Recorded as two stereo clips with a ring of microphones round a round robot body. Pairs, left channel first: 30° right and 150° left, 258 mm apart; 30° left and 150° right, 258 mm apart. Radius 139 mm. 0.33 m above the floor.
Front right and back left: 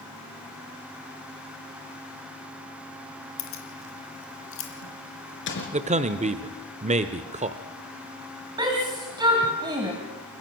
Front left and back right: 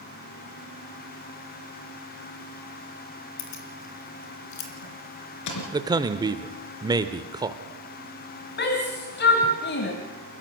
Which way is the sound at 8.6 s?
75° left.